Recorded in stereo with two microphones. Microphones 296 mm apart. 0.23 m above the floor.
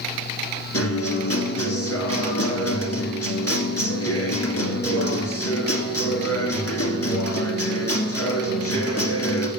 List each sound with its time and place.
0.7 s a guitar: 55° left (ahead or behind), 1.6 m